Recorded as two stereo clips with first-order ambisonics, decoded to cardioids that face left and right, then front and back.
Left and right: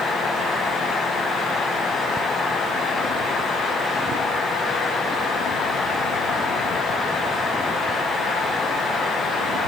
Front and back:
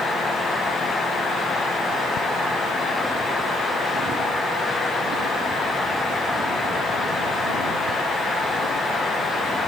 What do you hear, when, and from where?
Only background noise.